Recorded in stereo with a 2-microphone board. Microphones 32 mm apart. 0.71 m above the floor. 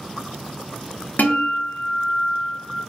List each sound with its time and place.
1.2 s a guitar: 75° left (ahead or behind), 0.7 m